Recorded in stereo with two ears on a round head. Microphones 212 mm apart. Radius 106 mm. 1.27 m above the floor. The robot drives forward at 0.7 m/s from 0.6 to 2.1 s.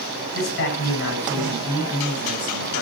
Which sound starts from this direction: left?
A man speaking, at 0.3 s.